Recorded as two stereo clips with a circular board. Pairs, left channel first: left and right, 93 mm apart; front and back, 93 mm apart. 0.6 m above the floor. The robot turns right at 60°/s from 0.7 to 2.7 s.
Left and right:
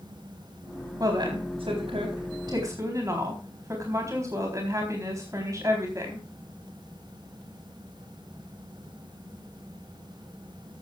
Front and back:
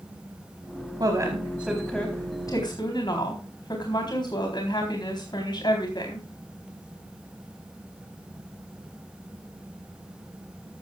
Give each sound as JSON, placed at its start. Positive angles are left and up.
{"t": 1.0, "sound": "a woman speaking", "azimuth_deg": -140, "distance_m": 4.0}